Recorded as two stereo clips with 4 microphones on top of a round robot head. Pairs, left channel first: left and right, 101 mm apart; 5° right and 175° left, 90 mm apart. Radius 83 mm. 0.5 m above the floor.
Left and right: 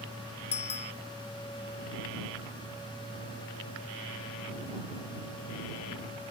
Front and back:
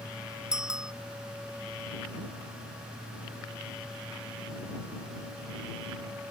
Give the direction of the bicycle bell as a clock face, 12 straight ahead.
9 o'clock.